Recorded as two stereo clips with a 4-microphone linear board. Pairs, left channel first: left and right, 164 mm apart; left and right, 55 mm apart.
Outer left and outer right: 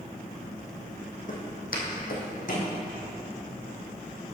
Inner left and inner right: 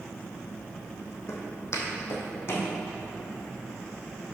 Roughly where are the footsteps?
Left.